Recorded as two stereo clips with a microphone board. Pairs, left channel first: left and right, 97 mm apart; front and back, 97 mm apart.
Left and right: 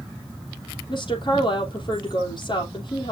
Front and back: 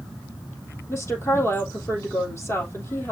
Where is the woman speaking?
60° left, 3 m.